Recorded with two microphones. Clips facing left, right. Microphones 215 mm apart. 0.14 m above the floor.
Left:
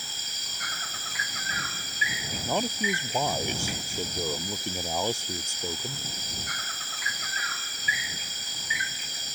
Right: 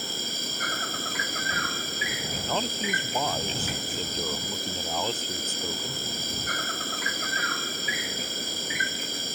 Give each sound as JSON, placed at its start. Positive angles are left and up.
{"t": 0.0, "sound": "an insect", "side_deg": -60}
{"t": 2.5, "sound": "a man speaking", "side_deg": 10}